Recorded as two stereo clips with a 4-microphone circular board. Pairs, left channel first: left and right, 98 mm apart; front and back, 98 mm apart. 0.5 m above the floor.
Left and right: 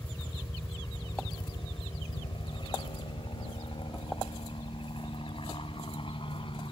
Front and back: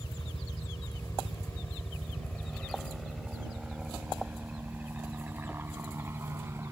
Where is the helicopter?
30° left; by 6.7 s 115° left.